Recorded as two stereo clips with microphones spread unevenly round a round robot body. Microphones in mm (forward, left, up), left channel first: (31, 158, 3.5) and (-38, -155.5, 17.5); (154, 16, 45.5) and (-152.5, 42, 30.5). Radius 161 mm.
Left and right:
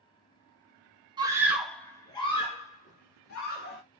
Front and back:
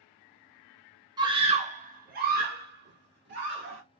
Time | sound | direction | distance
1.2 | a scream | 155° right | 0.9 m